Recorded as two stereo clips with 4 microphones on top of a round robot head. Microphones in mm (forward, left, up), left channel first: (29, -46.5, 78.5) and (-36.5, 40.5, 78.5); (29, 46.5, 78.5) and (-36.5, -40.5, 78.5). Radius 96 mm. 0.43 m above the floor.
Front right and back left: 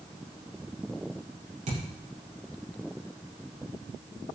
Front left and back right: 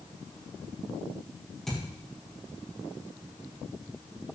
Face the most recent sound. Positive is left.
turn(degrees=140)